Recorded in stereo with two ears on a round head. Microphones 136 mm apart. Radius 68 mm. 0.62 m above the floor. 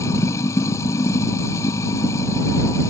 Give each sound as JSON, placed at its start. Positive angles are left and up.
{"t": 0.0, "sound": "running water", "side_deg": 20}